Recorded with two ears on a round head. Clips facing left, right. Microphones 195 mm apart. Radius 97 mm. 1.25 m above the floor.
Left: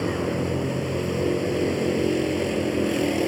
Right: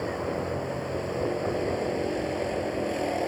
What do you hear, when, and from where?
0.0 s a vehicle: 40° left (ahead or behind)